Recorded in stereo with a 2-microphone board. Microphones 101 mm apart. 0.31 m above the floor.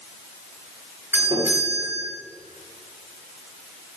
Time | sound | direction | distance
1.1 | a doorbell | 20° right (ahead or behind) | 7.5 m